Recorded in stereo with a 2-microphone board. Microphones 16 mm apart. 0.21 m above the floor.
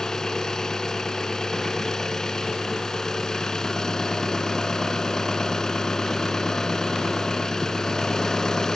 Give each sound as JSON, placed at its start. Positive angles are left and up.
{"t": 0.0, "sound": "an engine running", "side_deg": 40, "distance_m": 2.0}